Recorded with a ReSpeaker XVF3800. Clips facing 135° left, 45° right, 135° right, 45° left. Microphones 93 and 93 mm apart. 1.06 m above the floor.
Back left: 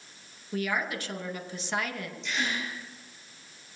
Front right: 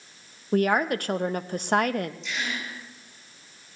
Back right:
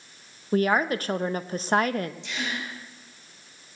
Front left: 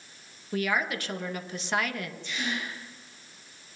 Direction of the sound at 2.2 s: 135° right.